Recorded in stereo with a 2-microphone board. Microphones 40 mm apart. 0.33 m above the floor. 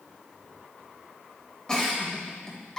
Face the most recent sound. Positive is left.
turn(degrees=20)  # may be behind; listen again after turning